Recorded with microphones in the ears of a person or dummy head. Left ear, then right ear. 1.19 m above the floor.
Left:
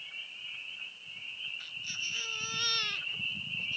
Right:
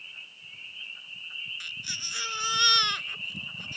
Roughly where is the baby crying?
Right.